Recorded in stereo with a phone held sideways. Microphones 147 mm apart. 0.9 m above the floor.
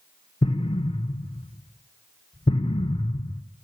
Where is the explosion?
35° left (ahead or behind), 0.7 m.